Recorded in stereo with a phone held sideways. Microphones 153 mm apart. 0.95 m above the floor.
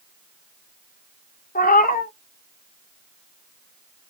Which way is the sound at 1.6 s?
65° left (ahead or behind).